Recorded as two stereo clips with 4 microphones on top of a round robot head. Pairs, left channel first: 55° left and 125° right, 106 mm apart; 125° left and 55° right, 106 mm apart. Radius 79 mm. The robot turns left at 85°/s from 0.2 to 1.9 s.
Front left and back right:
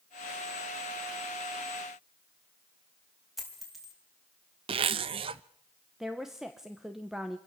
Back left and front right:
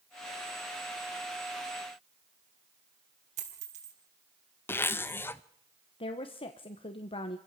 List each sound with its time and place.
3.4 s a dropped coin: 35° right, 4 m
4.7 s a zipper: 165° right, 0.5 m
6.0 s a woman speaking: 150° left, 1.2 m